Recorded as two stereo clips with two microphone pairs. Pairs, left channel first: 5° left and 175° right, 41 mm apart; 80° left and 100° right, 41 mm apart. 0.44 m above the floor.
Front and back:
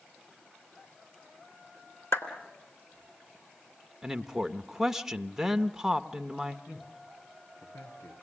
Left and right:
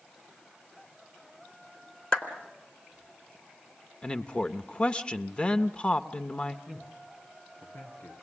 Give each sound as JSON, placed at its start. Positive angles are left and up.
{"t": 2.1, "sound": "a clap", "azimuth_deg": 5, "distance_m": 3.5}
{"t": 4.0, "sound": "a man speaking", "azimuth_deg": 115, "distance_m": 0.9}
{"t": 6.7, "sound": "a man speaking", "azimuth_deg": 25, "distance_m": 8.5}